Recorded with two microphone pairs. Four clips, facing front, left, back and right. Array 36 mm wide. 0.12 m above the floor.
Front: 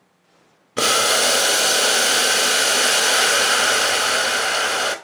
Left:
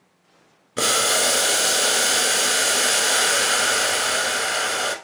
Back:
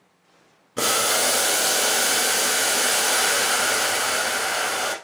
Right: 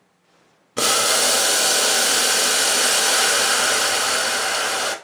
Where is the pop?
No pop in this recording.